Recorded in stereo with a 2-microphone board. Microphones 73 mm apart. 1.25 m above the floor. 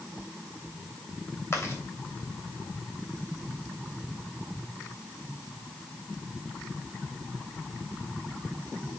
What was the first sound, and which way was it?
Chewing, 35° left (ahead or behind).